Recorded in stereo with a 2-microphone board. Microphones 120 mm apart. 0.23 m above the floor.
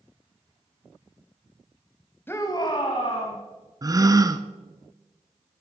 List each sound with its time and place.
2.3 s a shout: 20° left (ahead or behind), 1.0 m; by 3.4 s 55° left (ahead or behind), 2 m
3.8 s a gasp: 30° right (ahead or behind), 0.7 m